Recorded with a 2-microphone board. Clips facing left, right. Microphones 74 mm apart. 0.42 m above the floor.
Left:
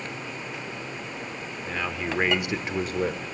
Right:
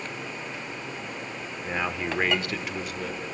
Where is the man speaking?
20° right (ahead or behind), 0.8 m; by 3.2 s 45° left (ahead or behind), 1.0 m.